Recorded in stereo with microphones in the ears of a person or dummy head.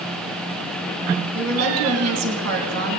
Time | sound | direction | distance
1.3 | a woman speaking | 85° right | 2.5 m